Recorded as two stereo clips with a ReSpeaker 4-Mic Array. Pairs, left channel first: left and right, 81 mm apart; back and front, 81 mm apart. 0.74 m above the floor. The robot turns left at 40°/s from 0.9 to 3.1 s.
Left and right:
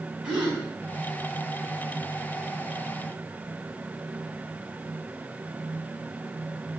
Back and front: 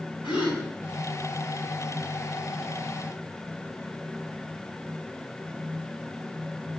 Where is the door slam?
I don't hear a door slam.